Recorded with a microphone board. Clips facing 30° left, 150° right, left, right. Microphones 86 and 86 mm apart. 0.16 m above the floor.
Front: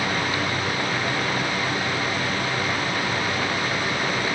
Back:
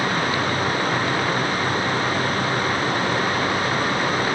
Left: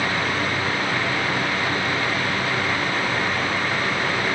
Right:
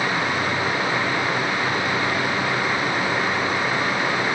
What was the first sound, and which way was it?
Only background noise.